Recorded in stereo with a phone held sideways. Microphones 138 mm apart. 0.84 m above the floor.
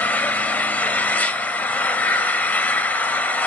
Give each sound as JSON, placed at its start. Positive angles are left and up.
{"t": 0.0, "sound": "an engine running", "side_deg": 10, "distance_m": 0.8}